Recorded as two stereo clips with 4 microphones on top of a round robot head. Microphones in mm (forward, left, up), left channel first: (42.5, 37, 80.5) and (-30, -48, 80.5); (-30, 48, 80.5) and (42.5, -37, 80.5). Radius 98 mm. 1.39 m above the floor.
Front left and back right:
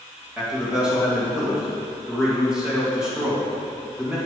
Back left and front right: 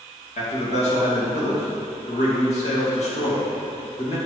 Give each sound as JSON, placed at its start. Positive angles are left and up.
{"t": 0.4, "sound": "a man speaking", "azimuth_deg": 145, "distance_m": 2.5}